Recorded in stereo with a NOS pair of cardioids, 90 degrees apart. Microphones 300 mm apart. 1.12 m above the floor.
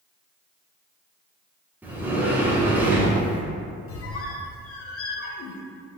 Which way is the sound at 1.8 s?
5° right.